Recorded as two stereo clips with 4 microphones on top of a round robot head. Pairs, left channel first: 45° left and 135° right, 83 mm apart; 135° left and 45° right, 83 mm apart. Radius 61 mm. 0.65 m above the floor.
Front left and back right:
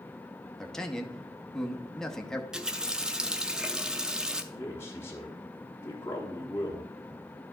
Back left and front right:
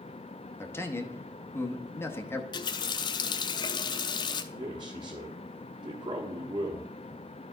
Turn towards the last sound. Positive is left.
turn(degrees=-20)